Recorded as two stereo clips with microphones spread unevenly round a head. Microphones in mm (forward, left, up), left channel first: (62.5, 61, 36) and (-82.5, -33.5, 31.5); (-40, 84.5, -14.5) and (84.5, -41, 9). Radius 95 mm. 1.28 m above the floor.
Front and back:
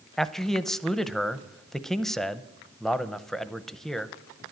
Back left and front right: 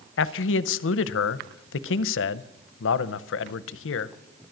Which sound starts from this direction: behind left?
A man speaking, at 0.2 s.